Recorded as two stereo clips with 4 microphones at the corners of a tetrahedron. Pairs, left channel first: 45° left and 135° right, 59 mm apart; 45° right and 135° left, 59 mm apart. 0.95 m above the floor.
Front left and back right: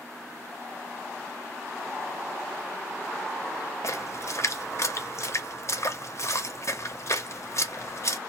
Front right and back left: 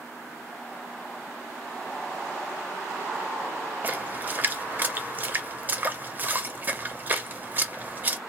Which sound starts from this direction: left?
A splash, at 3.8 s.